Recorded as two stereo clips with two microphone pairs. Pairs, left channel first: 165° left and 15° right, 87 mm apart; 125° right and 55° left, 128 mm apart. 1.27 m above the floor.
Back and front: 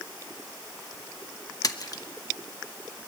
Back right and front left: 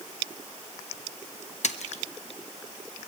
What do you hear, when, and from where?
1.6 s a splash: 150° right, 1.0 m